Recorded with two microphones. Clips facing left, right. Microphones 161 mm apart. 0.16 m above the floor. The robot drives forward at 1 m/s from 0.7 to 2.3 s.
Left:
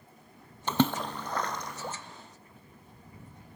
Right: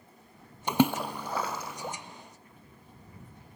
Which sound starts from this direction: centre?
A splash, at 0.7 s.